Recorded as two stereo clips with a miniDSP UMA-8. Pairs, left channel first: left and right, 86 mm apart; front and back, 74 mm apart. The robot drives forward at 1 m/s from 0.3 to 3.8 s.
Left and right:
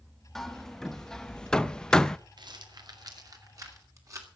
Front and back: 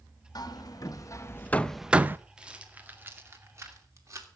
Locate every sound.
0.3 s hammering: 5° left, 1.5 m; by 2.2 s 165° left, 0.8 m
2.4 s a rattle: 105° right, 1.9 m; by 4.3 s 135° right, 2.5 m